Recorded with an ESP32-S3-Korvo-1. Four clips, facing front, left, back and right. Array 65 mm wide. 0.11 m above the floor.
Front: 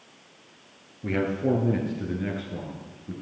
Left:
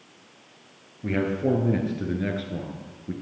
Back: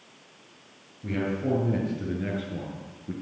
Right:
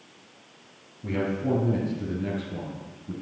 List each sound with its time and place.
1.0 s a man speaking: 40° left, 1.9 m; by 3.1 s 115° left, 1.7 m